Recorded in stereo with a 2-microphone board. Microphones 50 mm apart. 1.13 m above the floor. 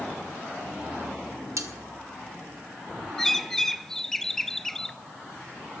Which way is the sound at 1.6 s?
80° right.